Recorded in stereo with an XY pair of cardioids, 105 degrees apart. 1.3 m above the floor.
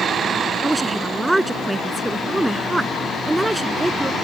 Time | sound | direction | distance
0.6 | a woman speaking | 10° right | ?